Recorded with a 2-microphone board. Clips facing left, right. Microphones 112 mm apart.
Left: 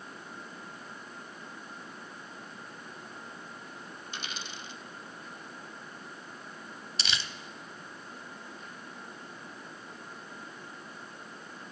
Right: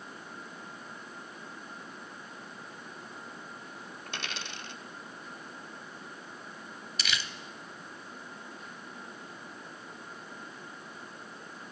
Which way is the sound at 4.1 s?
75° right (ahead or behind).